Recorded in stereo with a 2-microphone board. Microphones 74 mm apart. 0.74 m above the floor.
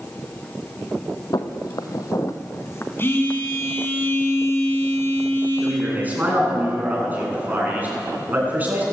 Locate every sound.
1.3 s footsteps: 60° left (ahead or behind), 1.4 m; by 3.9 s 20° left (ahead or behind), 3 m
3.0 s a phone buzzing: 30° left (ahead or behind), 5 m
5.6 s a man speaking: 20° right (ahead or behind), 8 m